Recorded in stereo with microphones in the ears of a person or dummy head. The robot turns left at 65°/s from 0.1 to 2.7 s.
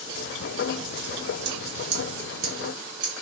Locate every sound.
1.4 s scissors: 60° right (ahead or behind), 1.3 m; by 3.2 s 25° right (ahead or behind), 1.3 m